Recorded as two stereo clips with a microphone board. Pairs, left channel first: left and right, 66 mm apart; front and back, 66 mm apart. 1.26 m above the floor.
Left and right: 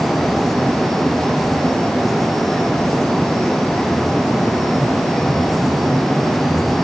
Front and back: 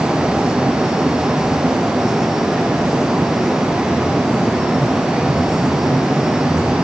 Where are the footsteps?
I don't hear footsteps.